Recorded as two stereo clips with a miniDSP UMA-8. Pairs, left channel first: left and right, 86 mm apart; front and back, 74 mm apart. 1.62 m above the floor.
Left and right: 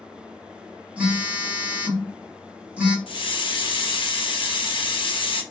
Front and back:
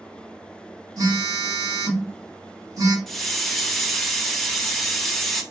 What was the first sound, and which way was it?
A phone buzzing, 160° right.